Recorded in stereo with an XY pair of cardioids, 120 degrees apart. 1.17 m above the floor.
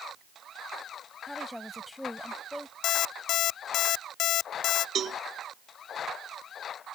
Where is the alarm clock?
70° left.